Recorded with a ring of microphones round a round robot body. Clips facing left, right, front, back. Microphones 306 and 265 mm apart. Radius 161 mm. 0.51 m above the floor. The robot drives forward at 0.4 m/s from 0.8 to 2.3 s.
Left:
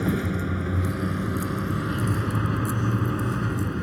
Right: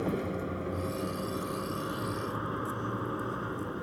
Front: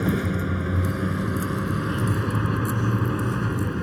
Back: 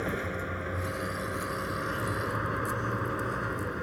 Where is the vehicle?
35° left; by 3.8 s 40° left.